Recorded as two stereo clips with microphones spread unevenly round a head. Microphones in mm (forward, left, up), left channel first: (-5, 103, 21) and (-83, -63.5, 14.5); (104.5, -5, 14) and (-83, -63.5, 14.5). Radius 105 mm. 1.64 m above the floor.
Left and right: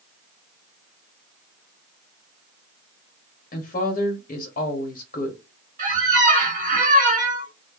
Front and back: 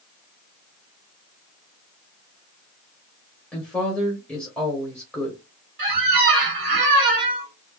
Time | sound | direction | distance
3.5 | a woman speaking | 100° left | 0.9 m
5.8 | a squeak | 145° right | 1.7 m